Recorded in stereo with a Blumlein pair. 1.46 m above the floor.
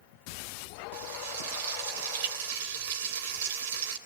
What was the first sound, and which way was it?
Frying, 50° right.